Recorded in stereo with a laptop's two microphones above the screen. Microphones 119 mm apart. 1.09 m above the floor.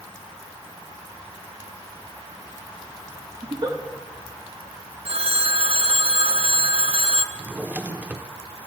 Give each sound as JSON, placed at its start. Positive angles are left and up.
{"t": 3.4, "sound": "a giggle", "side_deg": -40, "distance_m": 1.5}
{"t": 5.0, "sound": "a phone ringing", "side_deg": -60, "distance_m": 0.5}
{"t": 7.3, "sound": "a drawer", "side_deg": -15, "distance_m": 0.7}